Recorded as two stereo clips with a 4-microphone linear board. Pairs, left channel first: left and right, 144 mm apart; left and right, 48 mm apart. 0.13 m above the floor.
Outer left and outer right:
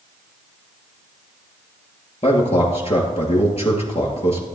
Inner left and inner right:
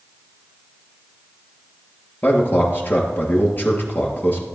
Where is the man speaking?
45° left (ahead or behind), 2.5 m.